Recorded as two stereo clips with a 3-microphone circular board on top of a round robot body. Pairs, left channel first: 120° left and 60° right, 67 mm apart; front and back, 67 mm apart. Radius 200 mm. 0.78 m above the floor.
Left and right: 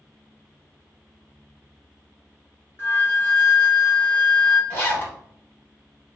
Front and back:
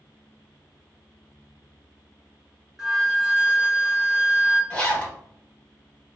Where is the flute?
100° left, 1.2 m.